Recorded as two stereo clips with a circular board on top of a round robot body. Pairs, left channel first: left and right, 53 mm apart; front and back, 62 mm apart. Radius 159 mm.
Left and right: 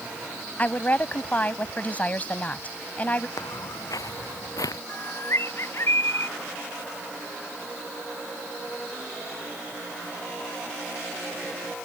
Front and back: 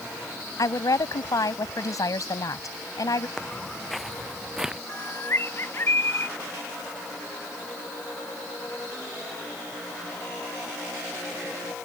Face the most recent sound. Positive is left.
turn(degrees=50)